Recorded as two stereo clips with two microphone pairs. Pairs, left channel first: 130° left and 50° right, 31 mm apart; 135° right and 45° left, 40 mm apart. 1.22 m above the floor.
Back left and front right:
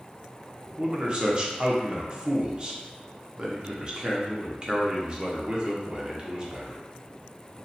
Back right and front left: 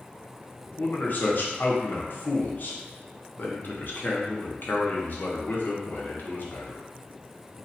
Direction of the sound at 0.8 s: 105° right.